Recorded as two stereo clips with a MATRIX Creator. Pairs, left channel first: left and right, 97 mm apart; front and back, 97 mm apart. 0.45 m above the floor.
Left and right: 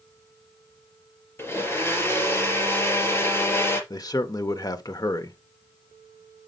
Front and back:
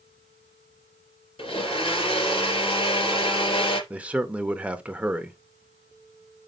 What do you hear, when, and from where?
1.4 s a blender: 25° left, 3.5 m
3.9 s a man speaking: 110° left, 1.0 m